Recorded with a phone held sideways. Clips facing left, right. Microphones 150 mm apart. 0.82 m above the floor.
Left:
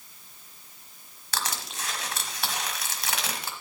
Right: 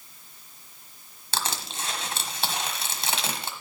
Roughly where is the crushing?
Right.